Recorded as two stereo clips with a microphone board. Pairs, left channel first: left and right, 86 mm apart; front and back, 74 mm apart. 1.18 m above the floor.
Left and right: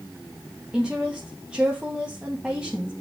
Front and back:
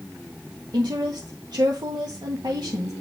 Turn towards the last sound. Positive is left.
turn(degrees=-170)